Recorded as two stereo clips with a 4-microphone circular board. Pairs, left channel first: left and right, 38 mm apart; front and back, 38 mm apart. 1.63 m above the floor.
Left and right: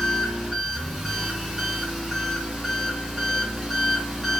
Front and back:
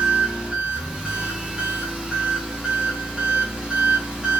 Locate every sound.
0.0 s an engine running: 175° right, 0.9 m